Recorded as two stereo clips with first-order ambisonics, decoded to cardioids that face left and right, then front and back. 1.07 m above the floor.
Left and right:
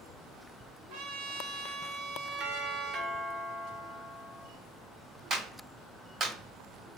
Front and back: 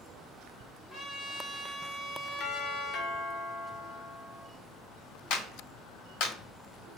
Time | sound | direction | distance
0.9 | a trumpet | 90° right | 1.1 m
2.4 | a doorbell | 40° right | 0.7 m
5.3 | a clap | 30° right | 1.5 m